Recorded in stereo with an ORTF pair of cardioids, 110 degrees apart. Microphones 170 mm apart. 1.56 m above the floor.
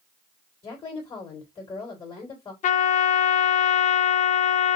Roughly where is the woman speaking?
Ahead left.